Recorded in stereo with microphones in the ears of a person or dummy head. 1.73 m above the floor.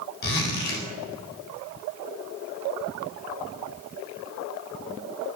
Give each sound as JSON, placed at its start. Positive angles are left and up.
{"t": 0.2, "sound": "a zipper", "side_deg": 50, "distance_m": 4.0}